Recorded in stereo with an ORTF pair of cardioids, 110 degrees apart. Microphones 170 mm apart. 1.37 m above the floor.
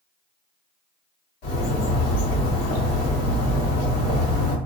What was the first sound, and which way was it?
A bird, 60° left.